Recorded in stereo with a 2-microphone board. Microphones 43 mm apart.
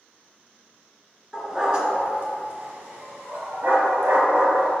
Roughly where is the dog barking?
Centre.